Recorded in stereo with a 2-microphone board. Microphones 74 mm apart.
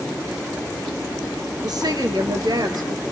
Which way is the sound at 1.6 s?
65° right (ahead or behind).